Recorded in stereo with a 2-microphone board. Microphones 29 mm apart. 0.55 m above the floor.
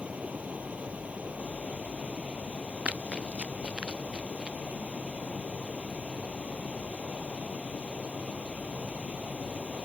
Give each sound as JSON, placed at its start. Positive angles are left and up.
{"t": 0.0, "sound": "running water", "side_deg": -45}
{"t": 2.9, "sound": "running footsteps", "side_deg": -45}